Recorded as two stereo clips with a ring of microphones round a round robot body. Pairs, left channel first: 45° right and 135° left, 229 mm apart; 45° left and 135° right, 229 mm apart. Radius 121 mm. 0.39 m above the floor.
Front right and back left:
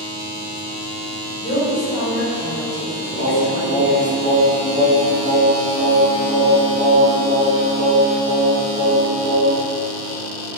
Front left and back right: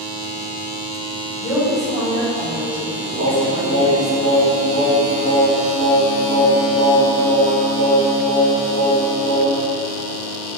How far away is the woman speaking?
About 2.0 m.